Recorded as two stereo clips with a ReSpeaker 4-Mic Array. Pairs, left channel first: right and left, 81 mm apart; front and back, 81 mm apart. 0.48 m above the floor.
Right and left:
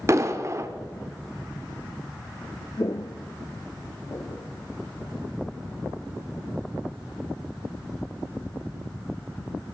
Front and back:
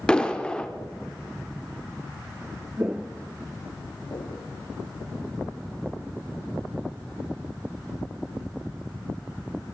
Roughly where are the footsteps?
Behind right.